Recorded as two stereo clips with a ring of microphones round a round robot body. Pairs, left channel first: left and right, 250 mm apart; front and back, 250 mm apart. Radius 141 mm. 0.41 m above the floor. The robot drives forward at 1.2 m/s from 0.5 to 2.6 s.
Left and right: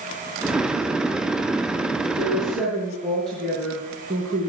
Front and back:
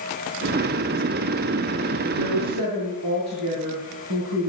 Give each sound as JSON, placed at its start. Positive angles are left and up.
{"t": 2.2, "sound": "a woman speaking", "azimuth_deg": 180, "distance_m": 4.0}